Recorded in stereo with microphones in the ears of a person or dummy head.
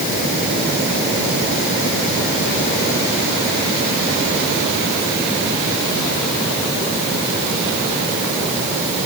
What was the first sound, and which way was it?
Only background noise.